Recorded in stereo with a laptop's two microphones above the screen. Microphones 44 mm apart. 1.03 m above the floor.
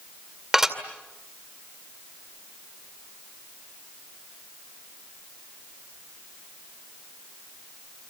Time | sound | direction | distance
0.5 | dishes clattering | 10° right (ahead or behind) | 2 m